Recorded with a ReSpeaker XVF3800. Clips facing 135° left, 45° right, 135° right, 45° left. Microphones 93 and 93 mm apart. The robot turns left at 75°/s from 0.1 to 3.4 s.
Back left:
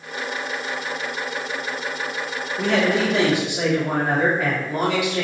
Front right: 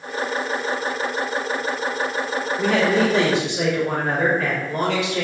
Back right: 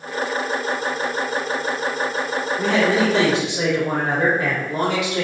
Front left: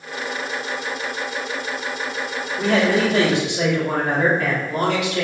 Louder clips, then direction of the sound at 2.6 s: Front right 1 dB, front left 1 dB; 100° right.